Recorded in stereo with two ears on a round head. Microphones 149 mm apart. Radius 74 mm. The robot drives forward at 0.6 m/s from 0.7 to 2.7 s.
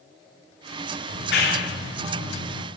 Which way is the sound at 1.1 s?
70° left (ahead or behind).